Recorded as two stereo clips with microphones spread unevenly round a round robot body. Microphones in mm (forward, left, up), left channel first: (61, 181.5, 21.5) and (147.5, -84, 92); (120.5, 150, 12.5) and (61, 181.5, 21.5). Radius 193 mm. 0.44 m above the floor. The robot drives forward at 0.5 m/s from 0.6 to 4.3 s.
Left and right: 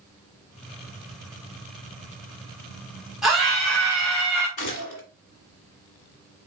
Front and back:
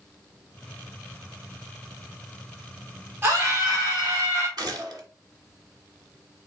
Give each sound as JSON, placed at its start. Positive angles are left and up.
{"t": 3.2, "sound": "a scream", "azimuth_deg": 170, "distance_m": 1.0}
{"t": 4.6, "sound": "a gunshot", "azimuth_deg": 135, "distance_m": 1.3}